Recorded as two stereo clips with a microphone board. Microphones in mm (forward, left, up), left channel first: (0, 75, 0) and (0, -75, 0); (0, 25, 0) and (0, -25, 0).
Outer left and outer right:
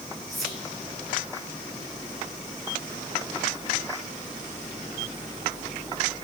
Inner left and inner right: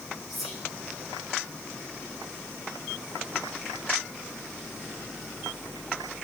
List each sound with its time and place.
0.3 s whispering: centre (ahead or behind), 1.8 m